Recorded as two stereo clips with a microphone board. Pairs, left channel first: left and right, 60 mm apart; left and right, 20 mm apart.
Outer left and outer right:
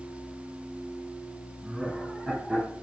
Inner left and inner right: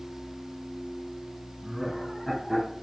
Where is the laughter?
20° right (ahead or behind), 5 m.